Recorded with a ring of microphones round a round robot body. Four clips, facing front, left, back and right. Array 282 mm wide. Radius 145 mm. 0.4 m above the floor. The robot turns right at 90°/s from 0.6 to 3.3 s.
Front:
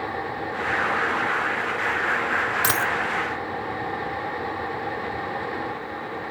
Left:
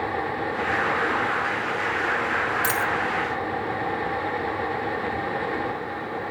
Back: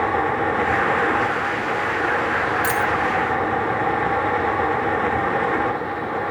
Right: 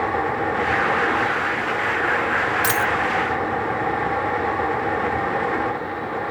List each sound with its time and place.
2.6 s a dropped coin: 35° right, 0.7 m; by 2.9 s 10° right, 0.7 m